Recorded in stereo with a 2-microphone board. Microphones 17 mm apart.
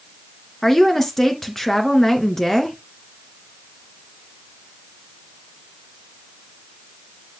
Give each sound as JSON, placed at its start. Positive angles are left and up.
{"t": 0.6, "sound": "a woman speaking", "side_deg": 25, "distance_m": 3.0}